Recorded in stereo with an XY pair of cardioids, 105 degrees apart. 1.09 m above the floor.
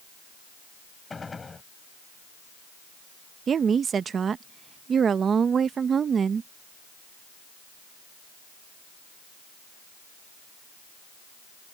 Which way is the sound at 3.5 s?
45° right.